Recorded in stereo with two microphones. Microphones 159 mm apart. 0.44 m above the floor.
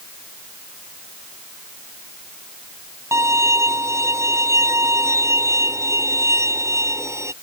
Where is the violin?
20° right (ahead or behind).